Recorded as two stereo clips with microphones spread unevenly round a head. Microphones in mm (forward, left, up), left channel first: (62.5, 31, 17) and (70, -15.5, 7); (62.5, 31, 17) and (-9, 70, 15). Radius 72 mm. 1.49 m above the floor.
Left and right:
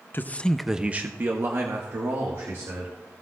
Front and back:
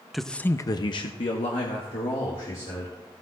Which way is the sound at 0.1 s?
65° left.